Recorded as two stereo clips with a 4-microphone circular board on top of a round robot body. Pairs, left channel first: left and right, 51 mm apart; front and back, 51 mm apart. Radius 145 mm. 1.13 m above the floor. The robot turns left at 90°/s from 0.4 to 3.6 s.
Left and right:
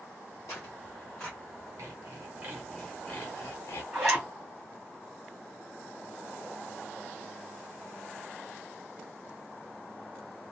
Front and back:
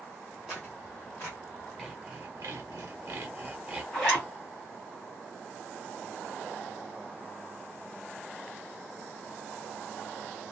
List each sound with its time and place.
0.5 s tearing paper: 95° left, 0.8 m; by 1.4 s 15° left, 0.8 m
1.8 s sawing: 85° right, 0.7 m; by 3.8 s 115° left, 0.7 m
3.9 s a zipper: 80° right, 1.4 m